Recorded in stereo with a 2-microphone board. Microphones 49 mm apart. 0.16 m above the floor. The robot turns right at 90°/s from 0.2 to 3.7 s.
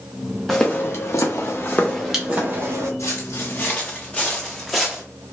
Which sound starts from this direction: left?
Footsteps, at 3.0 s.